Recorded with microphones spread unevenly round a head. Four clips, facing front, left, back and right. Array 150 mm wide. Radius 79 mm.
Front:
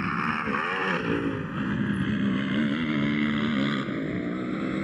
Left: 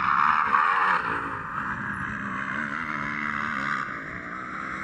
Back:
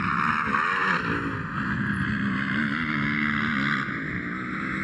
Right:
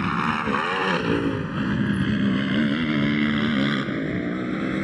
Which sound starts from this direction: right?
A motorcycle, at 0.0 s.